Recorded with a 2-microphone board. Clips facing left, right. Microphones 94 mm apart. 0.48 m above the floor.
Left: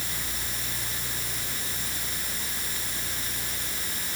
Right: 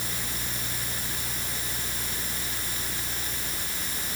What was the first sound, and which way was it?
Only background noise.